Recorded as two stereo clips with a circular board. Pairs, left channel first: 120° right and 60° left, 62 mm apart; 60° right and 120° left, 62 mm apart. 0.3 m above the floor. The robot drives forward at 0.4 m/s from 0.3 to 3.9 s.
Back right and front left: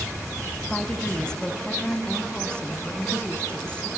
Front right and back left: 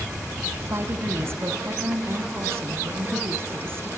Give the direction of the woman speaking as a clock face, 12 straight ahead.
7 o'clock.